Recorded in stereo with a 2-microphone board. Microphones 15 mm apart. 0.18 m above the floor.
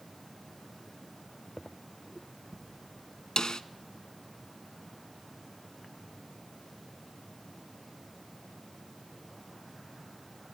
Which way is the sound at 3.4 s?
50° left (ahead or behind).